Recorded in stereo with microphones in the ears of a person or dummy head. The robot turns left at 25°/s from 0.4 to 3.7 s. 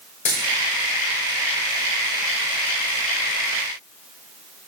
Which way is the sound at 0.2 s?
35° left (ahead or behind).